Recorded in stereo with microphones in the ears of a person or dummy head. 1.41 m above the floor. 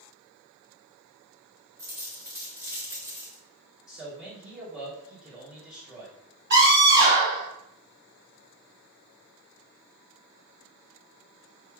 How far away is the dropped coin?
About 0.8 m.